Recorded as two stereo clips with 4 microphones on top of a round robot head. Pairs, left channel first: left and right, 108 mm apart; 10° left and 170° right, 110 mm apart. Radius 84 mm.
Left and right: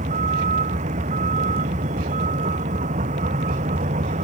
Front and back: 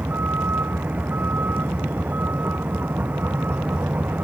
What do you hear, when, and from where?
0.0 s a vehicle: 90° right